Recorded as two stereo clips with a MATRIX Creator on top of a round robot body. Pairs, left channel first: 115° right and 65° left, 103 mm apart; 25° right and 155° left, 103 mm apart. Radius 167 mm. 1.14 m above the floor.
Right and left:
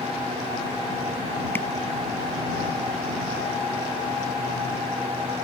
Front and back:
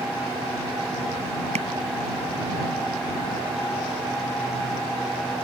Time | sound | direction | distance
1.6 | tapping | 175° left | ?